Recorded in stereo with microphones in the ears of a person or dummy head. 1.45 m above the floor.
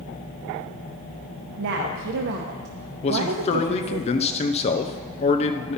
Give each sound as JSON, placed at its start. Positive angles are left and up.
{"t": 1.6, "sound": "a woman speaking", "side_deg": -70, "distance_m": 0.8}
{"t": 3.0, "sound": "a man speaking", "side_deg": 35, "distance_m": 0.7}